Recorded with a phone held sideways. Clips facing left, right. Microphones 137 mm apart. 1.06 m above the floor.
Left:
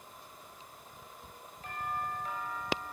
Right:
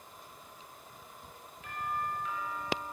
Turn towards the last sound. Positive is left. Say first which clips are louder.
# right 1 dB
turn(degrees=40)  # may be behind; listen again after turning